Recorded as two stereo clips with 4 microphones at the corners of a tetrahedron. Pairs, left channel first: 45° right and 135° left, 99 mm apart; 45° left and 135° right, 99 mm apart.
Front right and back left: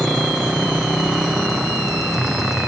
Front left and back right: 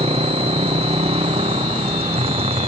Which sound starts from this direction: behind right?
A motorcycle, at 0.0 s.